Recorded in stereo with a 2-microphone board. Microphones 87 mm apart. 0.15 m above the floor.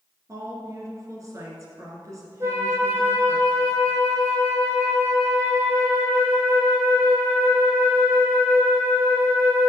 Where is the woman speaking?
40° right (ahead or behind), 2.5 m.